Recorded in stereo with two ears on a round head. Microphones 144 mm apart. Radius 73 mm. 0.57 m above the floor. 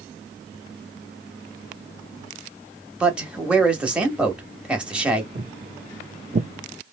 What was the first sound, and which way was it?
A man speaking, 5° right (ahead or behind).